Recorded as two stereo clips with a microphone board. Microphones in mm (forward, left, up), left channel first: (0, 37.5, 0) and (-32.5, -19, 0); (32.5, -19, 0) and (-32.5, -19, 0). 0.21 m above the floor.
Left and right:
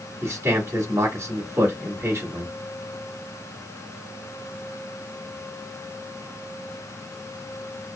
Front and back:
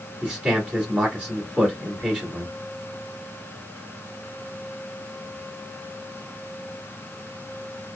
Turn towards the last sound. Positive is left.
turn(degrees=-105)